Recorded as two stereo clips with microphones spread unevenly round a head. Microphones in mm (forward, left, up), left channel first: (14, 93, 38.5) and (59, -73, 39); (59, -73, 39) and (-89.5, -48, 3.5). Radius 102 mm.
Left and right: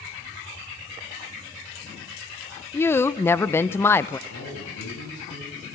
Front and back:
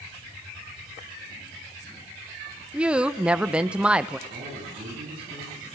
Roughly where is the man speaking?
Behind left.